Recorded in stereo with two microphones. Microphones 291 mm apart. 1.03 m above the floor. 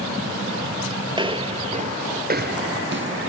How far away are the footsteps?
About 1.4 m.